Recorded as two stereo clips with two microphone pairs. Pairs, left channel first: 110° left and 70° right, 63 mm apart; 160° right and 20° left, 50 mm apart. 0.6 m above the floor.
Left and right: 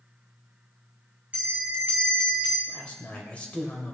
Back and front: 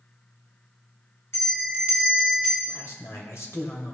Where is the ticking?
No ticking in this recording.